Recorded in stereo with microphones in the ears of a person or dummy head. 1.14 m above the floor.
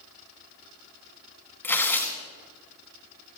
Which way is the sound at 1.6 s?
10° left (ahead or behind).